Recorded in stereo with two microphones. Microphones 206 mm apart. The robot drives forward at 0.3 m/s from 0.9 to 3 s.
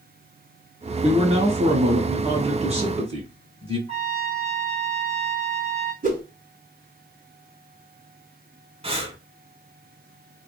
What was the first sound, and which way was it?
A man speaking, 30° right (ahead or behind).